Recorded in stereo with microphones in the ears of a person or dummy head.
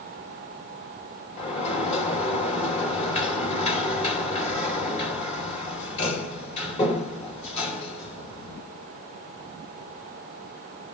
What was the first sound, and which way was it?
A sliding door, 40° left (ahead or behind).